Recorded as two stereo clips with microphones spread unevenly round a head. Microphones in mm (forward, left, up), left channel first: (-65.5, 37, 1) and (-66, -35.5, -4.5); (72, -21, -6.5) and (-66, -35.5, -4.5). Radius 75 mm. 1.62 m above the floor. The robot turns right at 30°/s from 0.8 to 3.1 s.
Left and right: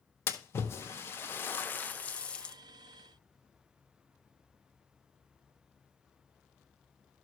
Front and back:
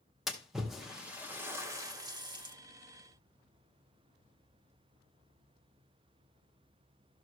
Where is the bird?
I don't hear a bird.